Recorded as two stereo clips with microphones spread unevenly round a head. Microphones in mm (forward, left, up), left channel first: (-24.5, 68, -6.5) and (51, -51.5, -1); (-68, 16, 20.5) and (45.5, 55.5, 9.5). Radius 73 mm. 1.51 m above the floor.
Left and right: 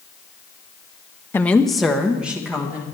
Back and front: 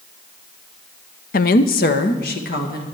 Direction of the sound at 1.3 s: 160° right.